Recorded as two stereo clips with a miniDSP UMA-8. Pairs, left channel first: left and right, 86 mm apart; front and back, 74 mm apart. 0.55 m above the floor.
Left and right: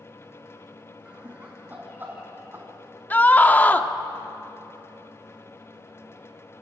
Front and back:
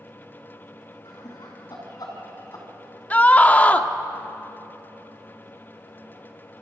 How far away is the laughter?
About 4.5 m.